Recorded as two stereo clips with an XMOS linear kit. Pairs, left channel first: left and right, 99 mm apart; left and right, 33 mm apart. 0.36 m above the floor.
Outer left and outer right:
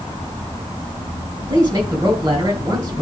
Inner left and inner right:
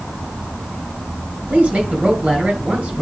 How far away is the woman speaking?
About 3.5 m.